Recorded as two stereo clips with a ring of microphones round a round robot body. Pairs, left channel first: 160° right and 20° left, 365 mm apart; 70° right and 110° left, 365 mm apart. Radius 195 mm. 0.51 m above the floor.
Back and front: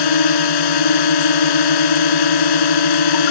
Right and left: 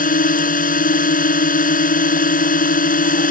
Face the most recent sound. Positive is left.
turn(degrees=-135)